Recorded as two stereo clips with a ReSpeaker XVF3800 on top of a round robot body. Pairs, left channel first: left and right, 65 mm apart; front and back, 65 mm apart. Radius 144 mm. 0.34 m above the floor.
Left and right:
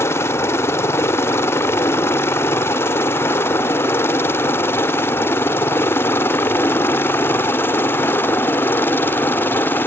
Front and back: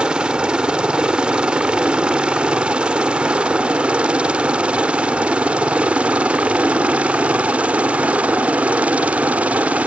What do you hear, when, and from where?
0.0 s a helicopter: 110° left; by 9.9 s 125° left